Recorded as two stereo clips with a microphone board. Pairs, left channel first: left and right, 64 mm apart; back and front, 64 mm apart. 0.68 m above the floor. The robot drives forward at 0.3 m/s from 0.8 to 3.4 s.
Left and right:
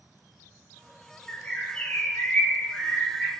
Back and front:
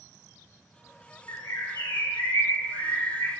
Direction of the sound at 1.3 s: 160° left.